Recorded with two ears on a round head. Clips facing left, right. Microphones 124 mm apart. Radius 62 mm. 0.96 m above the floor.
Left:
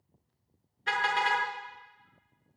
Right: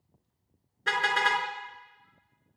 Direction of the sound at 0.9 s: 65° right (ahead or behind).